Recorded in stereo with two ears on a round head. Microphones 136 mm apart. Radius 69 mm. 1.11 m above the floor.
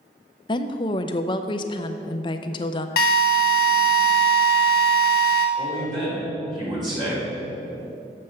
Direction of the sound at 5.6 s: 30° right (ahead or behind).